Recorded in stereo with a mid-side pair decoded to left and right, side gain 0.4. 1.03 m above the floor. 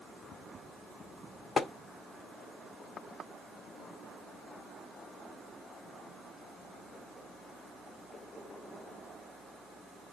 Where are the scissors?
I don't hear scissors.